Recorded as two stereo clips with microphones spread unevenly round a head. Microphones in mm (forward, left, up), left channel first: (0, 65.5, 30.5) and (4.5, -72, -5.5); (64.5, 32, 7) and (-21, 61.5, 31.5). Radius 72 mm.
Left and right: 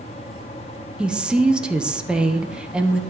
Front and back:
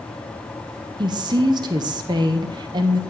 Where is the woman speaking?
155° right, 0.7 m.